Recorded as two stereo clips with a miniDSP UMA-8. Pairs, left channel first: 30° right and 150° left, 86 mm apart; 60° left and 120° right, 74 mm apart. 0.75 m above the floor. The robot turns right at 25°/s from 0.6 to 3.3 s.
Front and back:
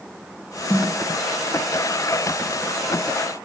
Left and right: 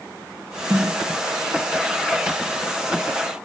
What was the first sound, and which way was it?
A snare drum, 175° right.